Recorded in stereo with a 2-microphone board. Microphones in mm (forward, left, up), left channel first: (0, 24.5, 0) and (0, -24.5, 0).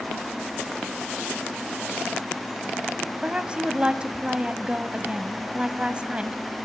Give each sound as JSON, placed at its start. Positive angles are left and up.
{"t": 3.2, "sound": "a woman speaking", "side_deg": -20, "distance_m": 1.1}